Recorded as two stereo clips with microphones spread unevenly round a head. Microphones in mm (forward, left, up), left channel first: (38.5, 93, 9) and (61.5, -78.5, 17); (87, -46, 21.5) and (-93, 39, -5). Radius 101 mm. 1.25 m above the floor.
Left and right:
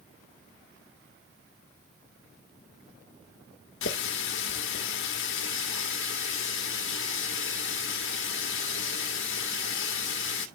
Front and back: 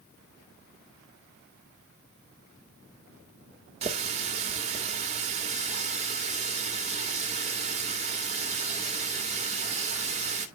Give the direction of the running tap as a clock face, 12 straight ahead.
9 o'clock.